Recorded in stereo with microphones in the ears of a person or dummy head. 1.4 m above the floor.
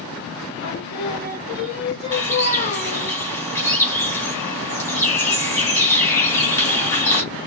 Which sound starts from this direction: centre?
A bird, at 2.1 s.